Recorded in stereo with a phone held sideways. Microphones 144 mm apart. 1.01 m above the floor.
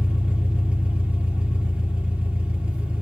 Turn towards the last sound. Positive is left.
turn(degrees=-10)  # may be behind; listen again after turning